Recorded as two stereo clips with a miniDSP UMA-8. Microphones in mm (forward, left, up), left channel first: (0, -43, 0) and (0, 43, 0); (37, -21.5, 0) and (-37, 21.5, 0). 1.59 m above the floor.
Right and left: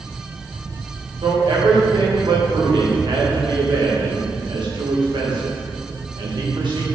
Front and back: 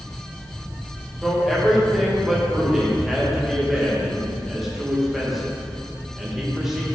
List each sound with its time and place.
1.2 s a man speaking: 65° left, 2.0 m